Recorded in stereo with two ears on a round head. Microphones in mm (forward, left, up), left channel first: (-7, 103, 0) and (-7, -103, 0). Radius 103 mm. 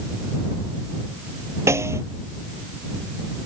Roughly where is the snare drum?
Centre.